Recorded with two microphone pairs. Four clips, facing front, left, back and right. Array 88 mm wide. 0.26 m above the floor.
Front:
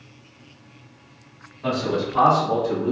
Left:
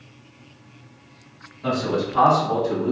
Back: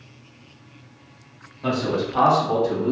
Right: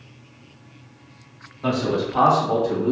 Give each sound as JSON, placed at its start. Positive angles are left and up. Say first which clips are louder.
{"t": 1.6, "sound": "a man speaking", "louder": "right 1 dB, even", "azimuth_deg": -105, "distance_m": 1.4}